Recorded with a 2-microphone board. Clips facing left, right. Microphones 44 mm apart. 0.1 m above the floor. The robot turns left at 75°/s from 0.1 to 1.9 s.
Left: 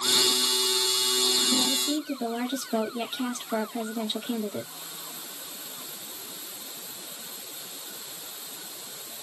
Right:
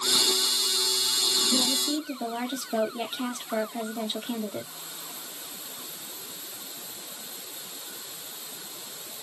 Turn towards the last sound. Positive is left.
turn(degrees=-5)  # may be behind; listen again after turning